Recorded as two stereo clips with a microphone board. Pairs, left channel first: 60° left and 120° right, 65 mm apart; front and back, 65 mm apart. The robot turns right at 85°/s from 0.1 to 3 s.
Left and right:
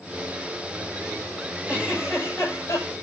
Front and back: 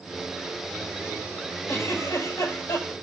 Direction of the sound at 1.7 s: 60° right.